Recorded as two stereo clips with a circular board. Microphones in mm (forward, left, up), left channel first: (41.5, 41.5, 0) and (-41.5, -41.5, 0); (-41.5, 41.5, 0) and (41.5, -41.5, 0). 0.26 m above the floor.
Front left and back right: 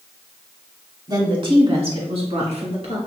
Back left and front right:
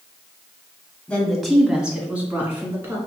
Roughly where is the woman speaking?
Behind right.